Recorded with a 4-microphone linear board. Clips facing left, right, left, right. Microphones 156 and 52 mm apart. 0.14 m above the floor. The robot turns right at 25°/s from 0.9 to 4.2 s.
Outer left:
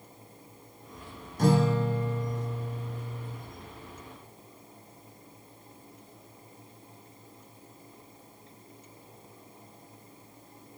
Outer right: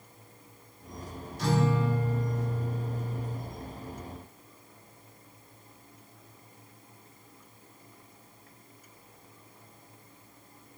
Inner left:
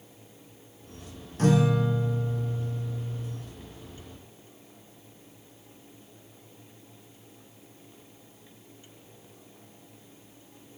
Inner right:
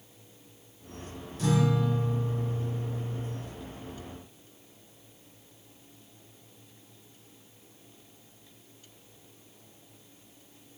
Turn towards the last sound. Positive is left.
turn(degrees=-170)